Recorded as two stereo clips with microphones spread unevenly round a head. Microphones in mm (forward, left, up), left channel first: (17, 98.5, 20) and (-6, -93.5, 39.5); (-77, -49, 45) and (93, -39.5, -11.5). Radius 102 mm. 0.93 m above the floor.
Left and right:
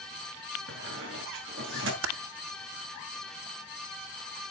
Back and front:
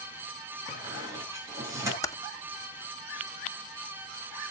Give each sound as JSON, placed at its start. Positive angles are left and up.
{"t": 0.7, "sound": "a squeak", "azimuth_deg": -70, "distance_m": 8.5}
{"t": 2.0, "sound": "typing on a keyboard", "azimuth_deg": -100, "distance_m": 1.2}